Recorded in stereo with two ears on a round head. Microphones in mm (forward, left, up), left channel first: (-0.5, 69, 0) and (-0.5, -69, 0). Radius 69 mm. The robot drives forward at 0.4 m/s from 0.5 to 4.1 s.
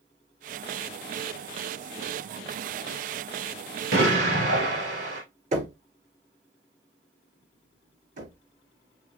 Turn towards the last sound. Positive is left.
turn(degrees=-55)  # may be behind; listen again after turning